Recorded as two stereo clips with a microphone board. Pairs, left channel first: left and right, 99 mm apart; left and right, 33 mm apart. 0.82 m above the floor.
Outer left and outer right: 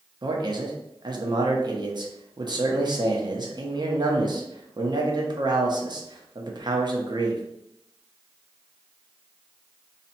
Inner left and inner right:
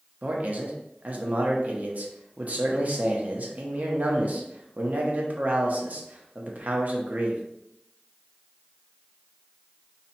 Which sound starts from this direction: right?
A man speaking, at 0.2 s.